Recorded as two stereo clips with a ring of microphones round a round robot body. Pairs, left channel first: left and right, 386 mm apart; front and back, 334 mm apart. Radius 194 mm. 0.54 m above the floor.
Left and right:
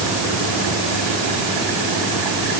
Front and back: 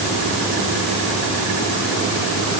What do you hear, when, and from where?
Only background noise.